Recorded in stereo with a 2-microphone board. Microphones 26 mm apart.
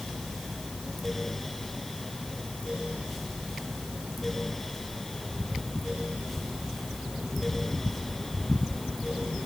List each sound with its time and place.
Only background noise.